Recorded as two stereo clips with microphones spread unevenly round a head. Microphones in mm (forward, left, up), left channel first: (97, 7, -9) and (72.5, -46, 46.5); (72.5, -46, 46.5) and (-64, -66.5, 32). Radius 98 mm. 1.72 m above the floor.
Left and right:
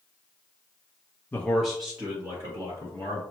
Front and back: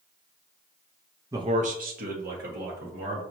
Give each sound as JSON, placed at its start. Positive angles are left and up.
{"t": 1.3, "sound": "a man speaking", "azimuth_deg": -110, "distance_m": 0.5}